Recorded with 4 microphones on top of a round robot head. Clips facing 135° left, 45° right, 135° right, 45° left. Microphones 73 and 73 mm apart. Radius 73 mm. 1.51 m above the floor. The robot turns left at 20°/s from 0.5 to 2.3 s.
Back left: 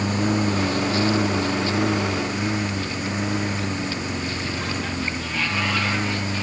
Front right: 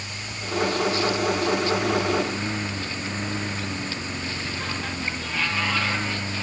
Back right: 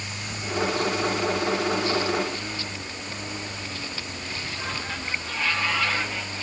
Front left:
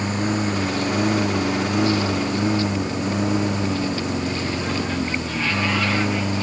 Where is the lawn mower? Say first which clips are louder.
Back left 14 dB, front left 13 dB; 90° left; by 6.4 s 55° left.